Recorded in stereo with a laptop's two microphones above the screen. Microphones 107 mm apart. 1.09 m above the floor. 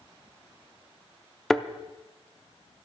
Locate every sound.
1.5 s a thud: centre (ahead or behind), 0.6 m